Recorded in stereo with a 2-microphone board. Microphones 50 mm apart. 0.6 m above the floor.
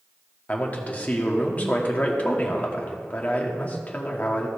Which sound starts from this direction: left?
A man speaking, at 0.5 s.